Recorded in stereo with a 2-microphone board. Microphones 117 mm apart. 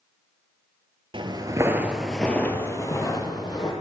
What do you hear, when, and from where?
1.1 s footsteps: 45° right (ahead or behind), 0.8 m; by 3.7 s 40° left (ahead or behind), 1.7 m